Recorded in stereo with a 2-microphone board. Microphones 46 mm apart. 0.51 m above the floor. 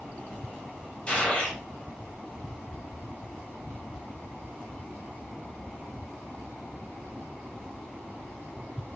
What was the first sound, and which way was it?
A gunshot, 25° left (ahead or behind).